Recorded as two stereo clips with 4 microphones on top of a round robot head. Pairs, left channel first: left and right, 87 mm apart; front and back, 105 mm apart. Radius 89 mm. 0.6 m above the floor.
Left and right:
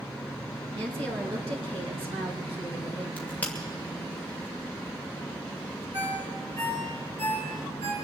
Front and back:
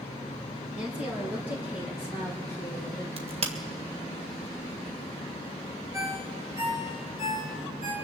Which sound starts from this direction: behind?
A crack, at 3.2 s.